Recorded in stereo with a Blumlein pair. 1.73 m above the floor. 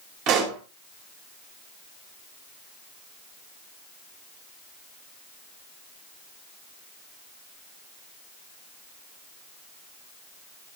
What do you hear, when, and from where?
0.3 s a pop: 35° right, 3.5 m